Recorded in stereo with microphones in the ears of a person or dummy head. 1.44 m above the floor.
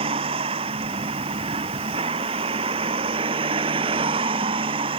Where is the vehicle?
25° right (ahead or behind).